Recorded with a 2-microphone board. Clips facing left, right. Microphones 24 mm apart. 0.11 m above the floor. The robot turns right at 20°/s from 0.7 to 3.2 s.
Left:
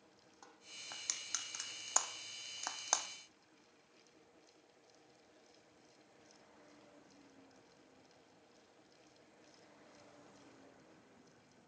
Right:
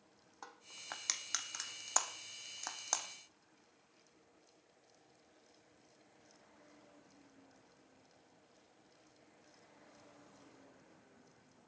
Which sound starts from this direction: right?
Crushing, at 0.4 s.